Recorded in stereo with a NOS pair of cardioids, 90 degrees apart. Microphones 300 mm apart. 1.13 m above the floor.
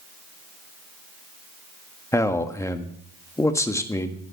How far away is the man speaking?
About 1.4 m.